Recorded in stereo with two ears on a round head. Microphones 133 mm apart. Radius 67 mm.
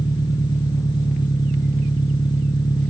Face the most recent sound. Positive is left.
turn(degrees=25)  # may be behind; listen again after turning